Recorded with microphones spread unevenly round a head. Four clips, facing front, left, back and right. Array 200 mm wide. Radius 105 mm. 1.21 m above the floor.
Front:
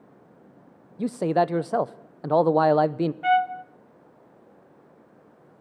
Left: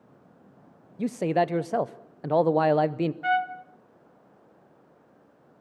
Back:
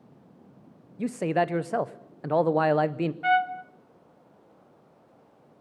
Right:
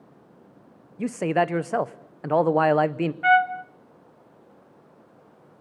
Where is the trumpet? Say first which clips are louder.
Right 10 dB, front 2 dB; 45° right, 0.6 m.